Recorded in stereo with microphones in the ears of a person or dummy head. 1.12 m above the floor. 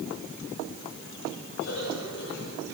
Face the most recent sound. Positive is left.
turn(degrees=55)  # may be behind; listen again after turning